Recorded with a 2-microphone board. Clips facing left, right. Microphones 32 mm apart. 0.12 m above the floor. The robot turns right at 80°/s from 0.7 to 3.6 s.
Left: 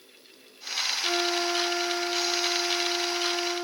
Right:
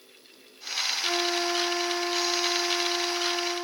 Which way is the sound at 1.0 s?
5° left (ahead or behind).